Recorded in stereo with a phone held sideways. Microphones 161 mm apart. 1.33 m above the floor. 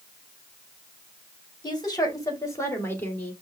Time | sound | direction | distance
1.6 | a woman speaking | 25° left (ahead or behind) | 3 m